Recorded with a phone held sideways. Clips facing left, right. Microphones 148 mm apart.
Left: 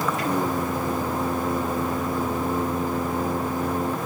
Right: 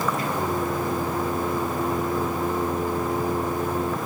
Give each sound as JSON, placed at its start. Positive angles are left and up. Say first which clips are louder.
{"t": 0.2, "sound": "singing", "louder": "left 1 dB", "side_deg": 85, "distance_m": 3.5}